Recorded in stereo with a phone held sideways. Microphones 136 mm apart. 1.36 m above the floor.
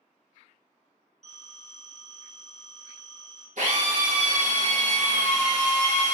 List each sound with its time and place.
1.2 s a phone ringing: 55° right (ahead or behind), 0.8 m
3.6 s a drill: 65° right (ahead or behind), 0.8 m